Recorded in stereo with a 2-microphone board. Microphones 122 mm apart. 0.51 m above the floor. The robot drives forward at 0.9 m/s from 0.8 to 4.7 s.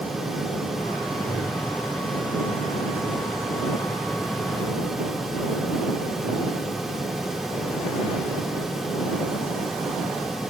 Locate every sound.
1.1 s a whoosh: 25° right (ahead or behind), 9 m